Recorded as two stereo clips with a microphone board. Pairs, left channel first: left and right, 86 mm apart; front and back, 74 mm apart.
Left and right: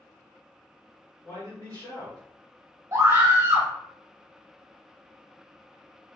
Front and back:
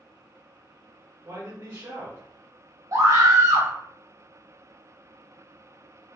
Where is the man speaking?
140° left, 1.9 m.